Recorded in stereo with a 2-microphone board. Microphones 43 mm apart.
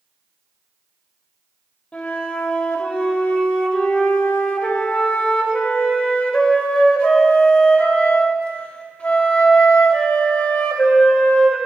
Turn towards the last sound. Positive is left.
turn(degrees=25)  # may be behind; listen again after turning